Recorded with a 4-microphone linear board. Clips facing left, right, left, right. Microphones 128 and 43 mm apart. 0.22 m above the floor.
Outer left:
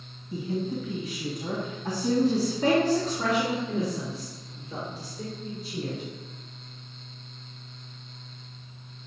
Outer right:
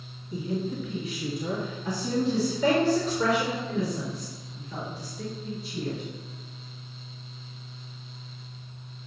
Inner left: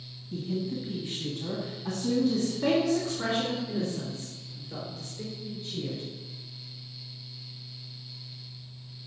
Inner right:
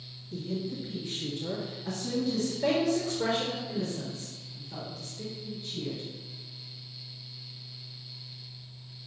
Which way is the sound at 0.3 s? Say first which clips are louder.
Even, inner left 2 dB; 30° left (ahead or behind).